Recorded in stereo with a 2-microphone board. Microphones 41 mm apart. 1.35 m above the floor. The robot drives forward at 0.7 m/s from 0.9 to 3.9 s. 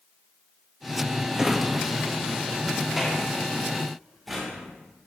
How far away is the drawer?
About 0.7 m.